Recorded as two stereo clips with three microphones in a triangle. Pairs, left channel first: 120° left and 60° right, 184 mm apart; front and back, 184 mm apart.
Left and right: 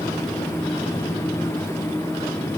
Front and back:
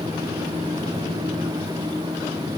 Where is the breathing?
I don't hear breathing.